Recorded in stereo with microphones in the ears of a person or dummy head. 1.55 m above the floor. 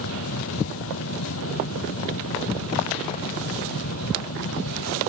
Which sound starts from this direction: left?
A fan, at 0.0 s.